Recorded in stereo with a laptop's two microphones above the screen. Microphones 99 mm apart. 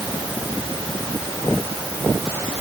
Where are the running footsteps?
I don't hear running footsteps.